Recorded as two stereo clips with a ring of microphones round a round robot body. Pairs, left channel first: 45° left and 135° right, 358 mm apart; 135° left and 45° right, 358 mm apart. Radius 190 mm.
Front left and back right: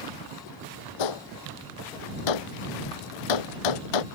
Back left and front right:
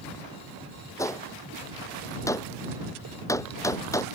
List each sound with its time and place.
1.0 s a gunshot: 55° left